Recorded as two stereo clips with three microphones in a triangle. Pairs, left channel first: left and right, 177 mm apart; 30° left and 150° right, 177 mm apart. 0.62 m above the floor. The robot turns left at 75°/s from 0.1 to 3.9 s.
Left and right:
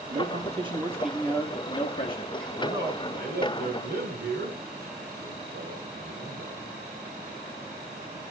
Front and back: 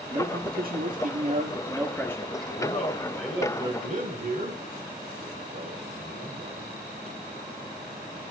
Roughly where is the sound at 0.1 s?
Right.